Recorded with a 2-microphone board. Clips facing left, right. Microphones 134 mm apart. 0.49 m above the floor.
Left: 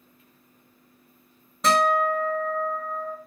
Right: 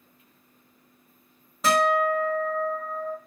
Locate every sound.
1.6 s a guitar: 5° right (ahead or behind), 1.0 m